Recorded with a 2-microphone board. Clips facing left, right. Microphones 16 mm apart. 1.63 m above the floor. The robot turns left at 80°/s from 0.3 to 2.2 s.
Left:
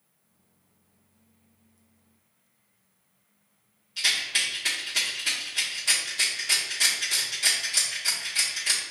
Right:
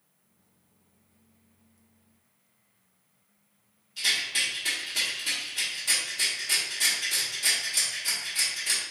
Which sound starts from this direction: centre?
A rattle, at 4.0 s.